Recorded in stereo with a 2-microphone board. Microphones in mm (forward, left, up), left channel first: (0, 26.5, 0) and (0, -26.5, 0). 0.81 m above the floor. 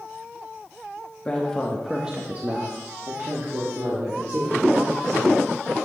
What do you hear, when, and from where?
1.2 s a woman speaking: 25° left (ahead or behind), 1.1 m; by 5.5 s 80° right, 3 m